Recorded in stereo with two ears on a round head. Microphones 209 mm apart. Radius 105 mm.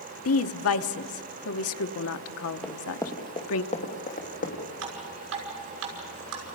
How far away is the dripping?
About 6 m.